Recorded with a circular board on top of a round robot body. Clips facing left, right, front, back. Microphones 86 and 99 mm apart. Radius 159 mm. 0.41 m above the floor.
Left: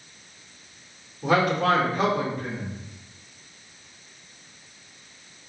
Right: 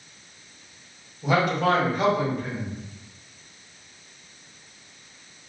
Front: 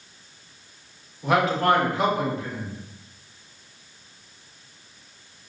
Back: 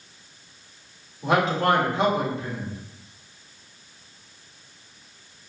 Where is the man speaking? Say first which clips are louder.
Left 1 dB, front 1 dB; 120° left, 1.9 m.